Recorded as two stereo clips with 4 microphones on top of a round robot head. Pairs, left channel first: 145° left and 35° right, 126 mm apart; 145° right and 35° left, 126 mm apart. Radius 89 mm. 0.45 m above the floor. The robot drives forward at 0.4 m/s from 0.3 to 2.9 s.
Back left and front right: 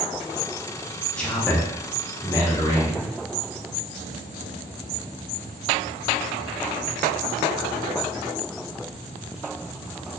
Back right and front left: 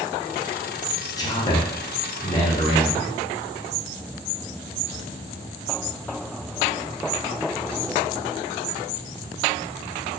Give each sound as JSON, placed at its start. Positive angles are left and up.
{"t": 1.2, "sound": "a man speaking", "azimuth_deg": -140, "distance_m": 0.9}